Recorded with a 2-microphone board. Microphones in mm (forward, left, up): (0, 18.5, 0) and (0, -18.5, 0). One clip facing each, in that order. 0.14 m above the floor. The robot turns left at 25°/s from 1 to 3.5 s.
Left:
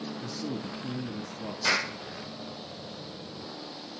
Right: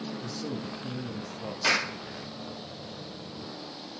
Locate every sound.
0.2 s a man speaking: 10° left (ahead or behind), 1.3 m; by 1.5 s centre (ahead or behind), 1.3 m
1.6 s a clap: 50° right (ahead or behind), 3.5 m; by 2.0 s 55° right (ahead or behind), 3.5 m